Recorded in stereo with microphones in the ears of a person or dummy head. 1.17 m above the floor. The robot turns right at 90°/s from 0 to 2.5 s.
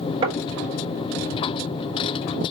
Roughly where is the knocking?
Right.